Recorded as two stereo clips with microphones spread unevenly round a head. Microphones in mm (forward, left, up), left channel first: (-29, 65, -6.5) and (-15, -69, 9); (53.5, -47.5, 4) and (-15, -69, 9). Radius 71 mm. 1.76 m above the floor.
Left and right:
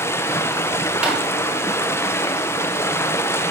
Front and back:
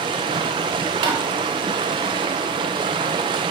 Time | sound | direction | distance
0.0 | running water | 170° left | 1.4 m
1.0 | tapping | 165° right | 4.5 m